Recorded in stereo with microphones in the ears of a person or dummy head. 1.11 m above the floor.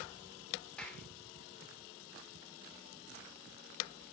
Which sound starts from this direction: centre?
A clap, at 0.8 s.